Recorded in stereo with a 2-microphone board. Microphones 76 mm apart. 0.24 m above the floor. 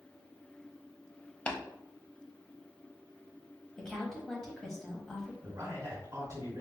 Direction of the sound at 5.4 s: 35° right (ahead or behind).